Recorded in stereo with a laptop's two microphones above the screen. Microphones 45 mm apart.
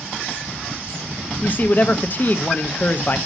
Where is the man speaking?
40° left (ahead or behind), 0.6 m.